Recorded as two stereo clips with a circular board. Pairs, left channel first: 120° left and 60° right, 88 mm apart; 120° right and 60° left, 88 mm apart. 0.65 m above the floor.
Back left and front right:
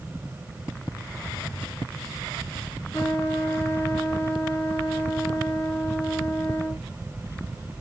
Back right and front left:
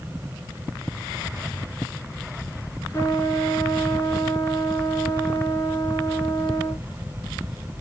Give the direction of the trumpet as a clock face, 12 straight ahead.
6 o'clock.